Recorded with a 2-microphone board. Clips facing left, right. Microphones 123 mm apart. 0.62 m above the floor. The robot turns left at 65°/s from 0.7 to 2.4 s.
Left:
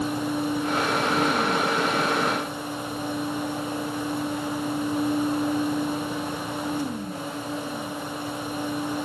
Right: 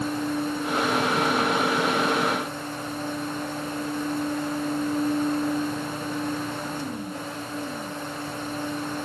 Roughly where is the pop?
No pop in this recording.